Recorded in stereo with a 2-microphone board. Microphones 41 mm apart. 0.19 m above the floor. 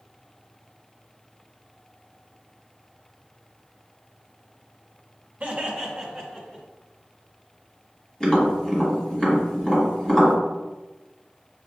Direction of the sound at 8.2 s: 20° left (ahead or behind).